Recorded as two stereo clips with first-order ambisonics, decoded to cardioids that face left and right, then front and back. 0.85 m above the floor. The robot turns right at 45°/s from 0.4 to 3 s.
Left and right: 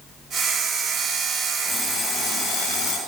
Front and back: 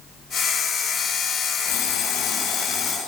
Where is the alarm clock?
5° left, 5 m; by 3.0 s 65° left, 5 m.